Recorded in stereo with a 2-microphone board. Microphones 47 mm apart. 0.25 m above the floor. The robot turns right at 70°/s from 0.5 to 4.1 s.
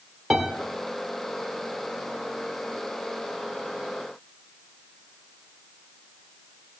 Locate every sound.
0.3 s a piano: 5° right (ahead or behind), 2 m